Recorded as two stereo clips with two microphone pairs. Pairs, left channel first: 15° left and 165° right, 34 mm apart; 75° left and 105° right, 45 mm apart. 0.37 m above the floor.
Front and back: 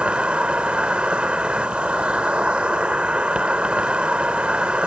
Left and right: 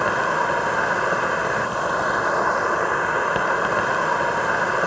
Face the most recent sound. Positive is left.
turn(degrees=165)